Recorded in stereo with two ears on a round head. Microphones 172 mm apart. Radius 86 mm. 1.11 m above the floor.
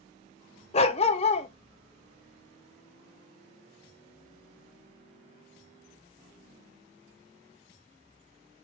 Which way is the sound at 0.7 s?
30° left (ahead or behind).